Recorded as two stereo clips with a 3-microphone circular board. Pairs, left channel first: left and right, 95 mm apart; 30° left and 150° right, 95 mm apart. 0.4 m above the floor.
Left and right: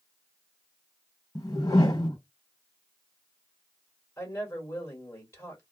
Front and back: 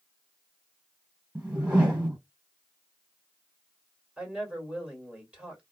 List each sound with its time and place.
1.4 s a whoosh: 135° left, 1.5 m
4.2 s a woman speaking: 135° left, 1.6 m